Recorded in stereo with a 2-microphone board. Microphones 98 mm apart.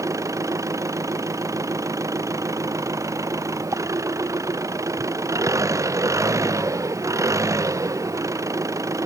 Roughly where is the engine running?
Right.